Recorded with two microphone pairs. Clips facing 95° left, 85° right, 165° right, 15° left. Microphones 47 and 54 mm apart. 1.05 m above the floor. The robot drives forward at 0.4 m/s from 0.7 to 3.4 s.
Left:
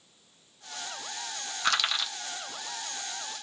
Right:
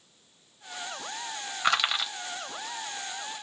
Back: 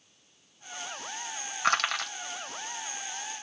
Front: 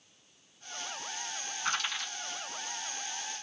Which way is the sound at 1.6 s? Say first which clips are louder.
Right 2 dB, back 8 dB; 155° right.